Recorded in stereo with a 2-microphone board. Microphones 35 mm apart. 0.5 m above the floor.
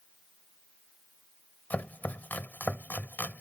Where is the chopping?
70° left (ahead or behind).